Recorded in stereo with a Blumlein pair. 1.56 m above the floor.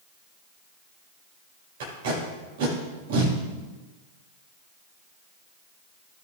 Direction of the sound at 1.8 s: 55° right.